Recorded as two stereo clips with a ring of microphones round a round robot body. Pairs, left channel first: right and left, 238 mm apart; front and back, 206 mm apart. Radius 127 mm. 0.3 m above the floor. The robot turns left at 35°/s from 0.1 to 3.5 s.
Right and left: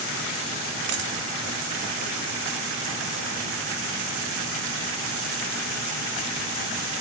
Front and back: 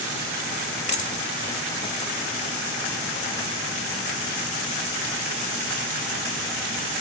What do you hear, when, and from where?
0.9 s a dropped coin: 55° left, 1.4 m; by 1.2 s 45° left, 1.4 m